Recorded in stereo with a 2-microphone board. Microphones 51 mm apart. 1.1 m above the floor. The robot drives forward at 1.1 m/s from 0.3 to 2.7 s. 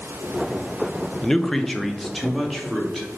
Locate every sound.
1.2 s a man speaking: 15° left (ahead or behind), 0.7 m; by 3.1 s 5° left (ahead or behind), 2 m